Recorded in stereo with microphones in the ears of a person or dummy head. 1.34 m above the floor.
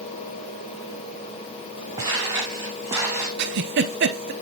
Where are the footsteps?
20° right (ahead or behind), 4.5 m; by 3.3 s 10° right (ahead or behind), 3.5 m.